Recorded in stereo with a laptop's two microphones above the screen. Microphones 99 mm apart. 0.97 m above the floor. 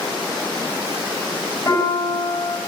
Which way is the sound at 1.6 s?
35° left (ahead or behind).